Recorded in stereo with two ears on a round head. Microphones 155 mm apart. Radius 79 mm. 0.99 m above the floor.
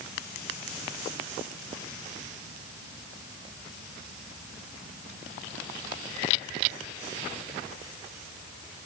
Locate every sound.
Only background noise.